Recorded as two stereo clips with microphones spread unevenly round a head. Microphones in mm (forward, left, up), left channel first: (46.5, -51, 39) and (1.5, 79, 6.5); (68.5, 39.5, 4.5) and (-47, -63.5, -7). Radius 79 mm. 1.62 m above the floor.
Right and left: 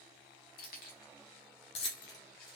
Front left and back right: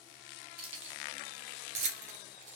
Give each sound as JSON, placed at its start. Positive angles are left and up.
{"t": 0.6, "sound": "keys jangling", "azimuth_deg": -80, "distance_m": 1.3}